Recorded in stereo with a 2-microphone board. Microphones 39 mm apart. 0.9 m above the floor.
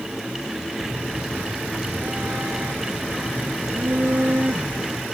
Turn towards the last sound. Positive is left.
turn(degrees=-60)  # may be behind; listen again after turning